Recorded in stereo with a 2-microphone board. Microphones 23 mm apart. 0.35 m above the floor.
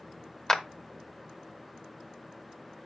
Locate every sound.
0.5 s a clap: 20° left (ahead or behind), 1.0 m